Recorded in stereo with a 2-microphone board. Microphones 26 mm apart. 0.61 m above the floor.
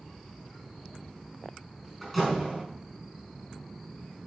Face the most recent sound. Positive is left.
turn(degrees=0)  # may be behind; listen again after turning